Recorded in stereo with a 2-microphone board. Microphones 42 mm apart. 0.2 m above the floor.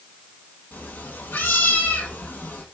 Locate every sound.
0.7 s a cat meowing: 65° left (ahead or behind), 2.5 m